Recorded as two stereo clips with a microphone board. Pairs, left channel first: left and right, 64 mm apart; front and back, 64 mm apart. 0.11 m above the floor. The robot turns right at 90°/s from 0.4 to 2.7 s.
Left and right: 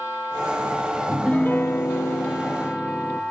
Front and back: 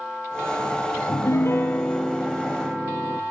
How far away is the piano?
About 0.7 m.